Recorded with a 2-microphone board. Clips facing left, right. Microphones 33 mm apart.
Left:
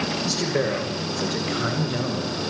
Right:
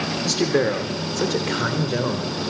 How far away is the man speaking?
About 3.5 m.